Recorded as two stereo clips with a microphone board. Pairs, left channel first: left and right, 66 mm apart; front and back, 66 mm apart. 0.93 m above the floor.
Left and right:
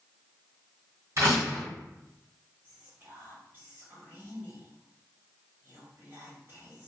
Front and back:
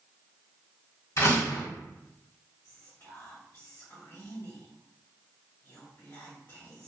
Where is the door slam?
45° right, 1.4 m.